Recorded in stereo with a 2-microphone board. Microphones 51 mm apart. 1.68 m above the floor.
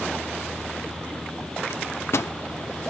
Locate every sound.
1.7 s a microwave: 60° left (ahead or behind), 0.5 m